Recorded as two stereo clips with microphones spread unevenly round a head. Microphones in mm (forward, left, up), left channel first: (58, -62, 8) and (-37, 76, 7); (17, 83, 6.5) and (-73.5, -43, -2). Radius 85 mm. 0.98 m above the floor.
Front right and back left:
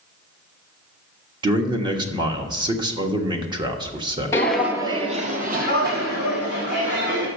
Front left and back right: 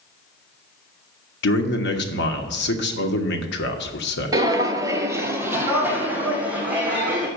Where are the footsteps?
90° right, 1.0 m; by 7.3 s 150° left, 3.5 m.